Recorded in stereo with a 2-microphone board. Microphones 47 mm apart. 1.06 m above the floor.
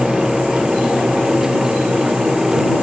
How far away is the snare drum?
I don't hear a snare drum.